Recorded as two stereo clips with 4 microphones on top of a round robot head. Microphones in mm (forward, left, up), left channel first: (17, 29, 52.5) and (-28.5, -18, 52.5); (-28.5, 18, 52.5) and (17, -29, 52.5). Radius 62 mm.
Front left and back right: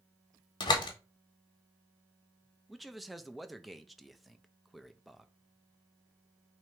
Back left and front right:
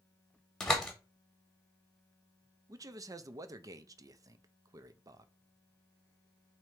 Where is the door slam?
50° left, 0.9 m.